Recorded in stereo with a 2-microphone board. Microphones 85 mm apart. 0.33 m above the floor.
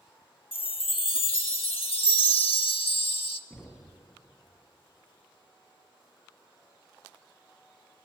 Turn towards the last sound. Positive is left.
turn(degrees=10)  # may be behind; listen again after turning